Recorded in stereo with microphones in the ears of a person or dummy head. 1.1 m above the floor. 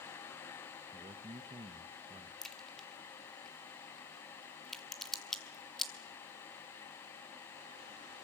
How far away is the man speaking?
About 1.1 m.